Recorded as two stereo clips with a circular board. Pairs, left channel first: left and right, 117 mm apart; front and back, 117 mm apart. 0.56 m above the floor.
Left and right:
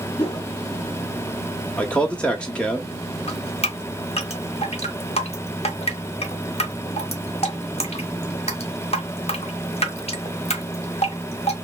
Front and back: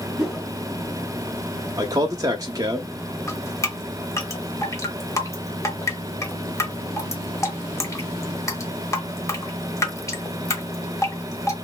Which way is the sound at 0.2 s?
85° left.